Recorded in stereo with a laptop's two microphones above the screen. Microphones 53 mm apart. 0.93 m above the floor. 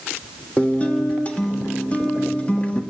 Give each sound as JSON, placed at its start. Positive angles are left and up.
{"t": 0.6, "sound": "a guitar", "side_deg": 25, "distance_m": 1.3}